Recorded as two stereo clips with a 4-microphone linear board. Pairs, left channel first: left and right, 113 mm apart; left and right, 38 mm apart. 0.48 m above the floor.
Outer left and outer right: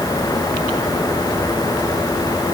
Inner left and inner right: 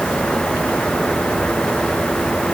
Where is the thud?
I don't hear a thud.